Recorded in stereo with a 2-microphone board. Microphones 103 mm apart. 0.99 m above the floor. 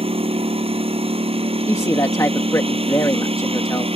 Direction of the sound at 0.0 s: 70° right (ahead or behind).